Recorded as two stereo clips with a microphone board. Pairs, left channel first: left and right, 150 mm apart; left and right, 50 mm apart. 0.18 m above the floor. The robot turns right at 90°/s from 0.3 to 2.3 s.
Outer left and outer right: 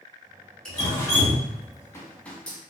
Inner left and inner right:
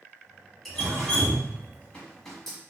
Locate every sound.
0.7 s dripping: 5° left (ahead or behind), 1.1 m; by 2.6 s 10° left (ahead or behind), 1.1 m